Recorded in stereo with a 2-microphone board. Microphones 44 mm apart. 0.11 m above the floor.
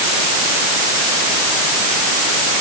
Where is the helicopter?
No helicopter in this recording.